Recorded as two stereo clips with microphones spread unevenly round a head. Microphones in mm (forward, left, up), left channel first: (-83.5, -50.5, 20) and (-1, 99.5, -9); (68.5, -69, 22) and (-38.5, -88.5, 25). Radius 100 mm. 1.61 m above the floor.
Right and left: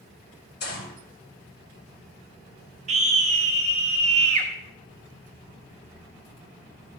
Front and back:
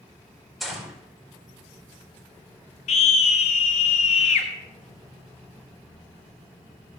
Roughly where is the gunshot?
Right.